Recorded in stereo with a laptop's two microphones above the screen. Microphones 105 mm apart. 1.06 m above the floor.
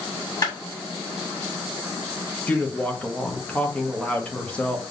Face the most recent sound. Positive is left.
turn(degrees=10)  # may be behind; listen again after turning